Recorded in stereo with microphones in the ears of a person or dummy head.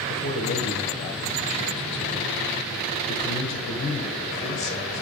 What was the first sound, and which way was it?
A man speaking, 35° left (ahead or behind).